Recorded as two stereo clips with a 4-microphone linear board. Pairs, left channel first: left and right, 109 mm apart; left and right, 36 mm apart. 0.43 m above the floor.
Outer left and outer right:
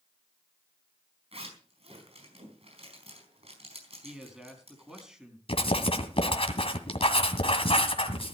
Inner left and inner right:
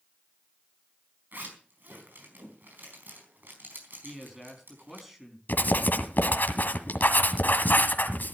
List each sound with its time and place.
1.3 s a zipper: 65° right (ahead or behind), 4.5 m
4.0 s a man speaking: 5° right (ahead or behind), 4 m
5.5 s writing: 60° left (ahead or behind), 1.9 m